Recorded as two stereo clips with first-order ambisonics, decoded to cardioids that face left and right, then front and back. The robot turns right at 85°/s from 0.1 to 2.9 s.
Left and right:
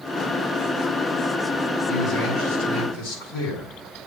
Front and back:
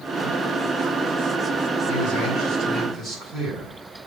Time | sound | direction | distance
1.9 | a man speaking | straight ahead | 7 m